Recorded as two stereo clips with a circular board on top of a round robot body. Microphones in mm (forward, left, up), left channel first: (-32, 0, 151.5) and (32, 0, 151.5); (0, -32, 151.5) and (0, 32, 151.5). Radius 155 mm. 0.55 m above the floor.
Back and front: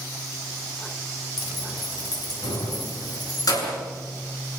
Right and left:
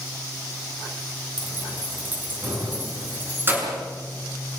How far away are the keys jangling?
About 5.5 m.